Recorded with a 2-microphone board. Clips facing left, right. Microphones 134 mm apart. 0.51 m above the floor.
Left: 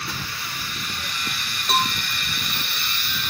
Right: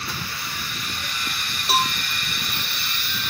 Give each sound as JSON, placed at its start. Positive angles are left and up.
{"t": 1.7, "sound": "a cowbell", "side_deg": -5}